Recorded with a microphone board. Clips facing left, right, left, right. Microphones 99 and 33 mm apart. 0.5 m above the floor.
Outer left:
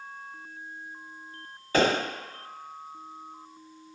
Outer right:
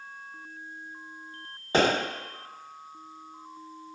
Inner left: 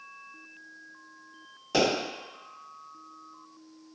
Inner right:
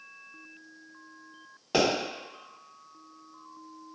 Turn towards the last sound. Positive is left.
turn(degrees=-25)  # may be behind; listen again after turning